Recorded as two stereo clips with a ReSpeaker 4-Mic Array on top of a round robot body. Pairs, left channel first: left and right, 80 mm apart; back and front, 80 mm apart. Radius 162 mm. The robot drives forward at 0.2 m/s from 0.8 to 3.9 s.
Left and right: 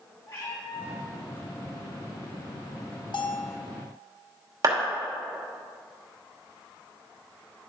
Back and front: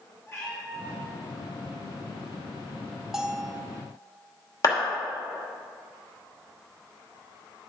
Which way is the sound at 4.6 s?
135° right.